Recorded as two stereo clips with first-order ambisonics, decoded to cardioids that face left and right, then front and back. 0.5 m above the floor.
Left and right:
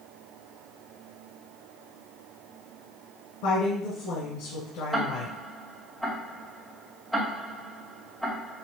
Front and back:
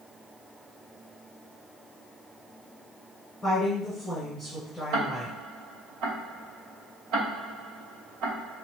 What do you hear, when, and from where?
3.4 s a woman speaking: 85° left, 2.5 m
4.9 s ticking: 175° left, 2.0 m